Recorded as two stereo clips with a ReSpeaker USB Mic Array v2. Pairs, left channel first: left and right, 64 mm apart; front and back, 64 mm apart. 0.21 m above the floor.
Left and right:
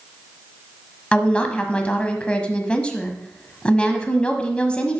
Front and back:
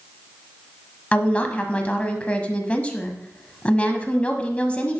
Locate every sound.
1.1 s a woman speaking: 40° left, 1.0 m